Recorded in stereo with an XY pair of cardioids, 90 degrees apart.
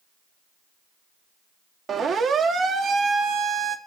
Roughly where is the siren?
Ahead right.